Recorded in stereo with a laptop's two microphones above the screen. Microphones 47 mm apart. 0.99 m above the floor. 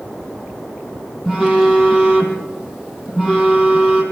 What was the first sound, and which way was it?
A phone buzzing, 5° right (ahead or behind).